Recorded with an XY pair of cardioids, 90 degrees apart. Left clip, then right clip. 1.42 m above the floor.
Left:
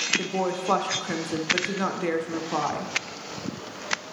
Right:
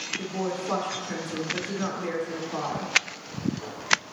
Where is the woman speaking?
60° left, 1.0 m.